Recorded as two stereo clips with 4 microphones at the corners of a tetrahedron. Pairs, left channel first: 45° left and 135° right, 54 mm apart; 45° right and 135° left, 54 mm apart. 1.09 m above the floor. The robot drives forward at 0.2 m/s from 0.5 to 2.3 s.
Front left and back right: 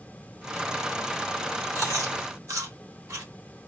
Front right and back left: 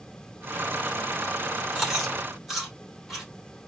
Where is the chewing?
135° right, 2.5 m; by 3.3 s 140° right, 2.5 m.